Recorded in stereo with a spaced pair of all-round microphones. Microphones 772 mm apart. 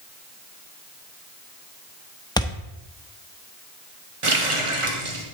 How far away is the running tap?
About 1.4 m.